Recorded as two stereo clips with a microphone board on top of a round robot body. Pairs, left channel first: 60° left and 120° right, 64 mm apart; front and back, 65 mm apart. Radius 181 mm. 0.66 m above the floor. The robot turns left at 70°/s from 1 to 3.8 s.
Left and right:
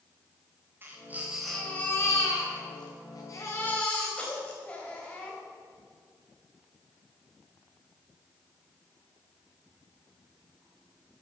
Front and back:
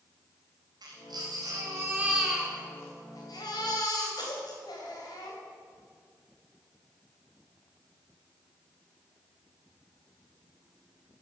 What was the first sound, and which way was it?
A baby crying, straight behind.